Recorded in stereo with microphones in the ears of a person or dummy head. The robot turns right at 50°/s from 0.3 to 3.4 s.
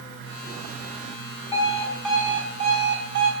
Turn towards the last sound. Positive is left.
turn(degrees=-115)